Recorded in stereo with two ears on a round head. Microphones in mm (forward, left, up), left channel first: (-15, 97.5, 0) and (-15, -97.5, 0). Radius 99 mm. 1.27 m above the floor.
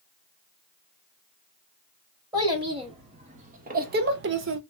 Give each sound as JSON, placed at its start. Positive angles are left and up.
{"t": 2.3, "sound": "a child speaking", "side_deg": -20, "distance_m": 1.6}